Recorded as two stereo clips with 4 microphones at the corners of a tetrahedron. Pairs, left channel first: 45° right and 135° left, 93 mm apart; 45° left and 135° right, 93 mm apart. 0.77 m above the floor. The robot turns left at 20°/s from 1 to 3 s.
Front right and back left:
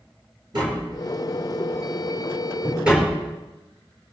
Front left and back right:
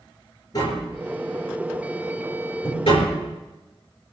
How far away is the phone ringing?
I don't hear a phone ringing.